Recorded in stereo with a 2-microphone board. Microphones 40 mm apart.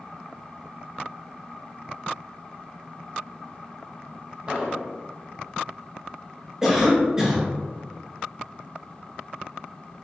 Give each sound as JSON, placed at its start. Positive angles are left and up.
{"t": 4.5, "sound": "an explosion", "side_deg": -25, "distance_m": 0.6}
{"t": 6.6, "sound": "a cough", "side_deg": -10, "distance_m": 0.8}